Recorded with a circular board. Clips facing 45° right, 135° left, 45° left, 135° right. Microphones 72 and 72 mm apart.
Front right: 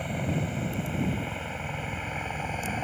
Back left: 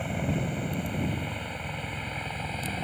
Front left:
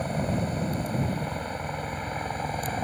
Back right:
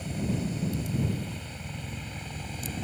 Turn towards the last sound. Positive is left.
turn(degrees=25)